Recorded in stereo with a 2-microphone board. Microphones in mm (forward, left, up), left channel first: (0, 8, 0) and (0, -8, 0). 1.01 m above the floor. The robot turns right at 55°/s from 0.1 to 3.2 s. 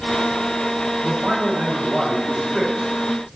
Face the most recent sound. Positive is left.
turn(degrees=20)